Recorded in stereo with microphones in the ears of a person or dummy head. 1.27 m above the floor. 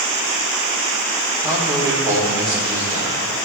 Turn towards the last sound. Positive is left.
turn(degrees=-25)  # may be behind; listen again after turning